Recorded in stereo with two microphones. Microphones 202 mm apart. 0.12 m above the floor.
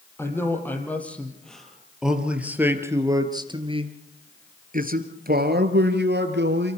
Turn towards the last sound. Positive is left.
turn(degrees=-60)  # may be behind; listen again after turning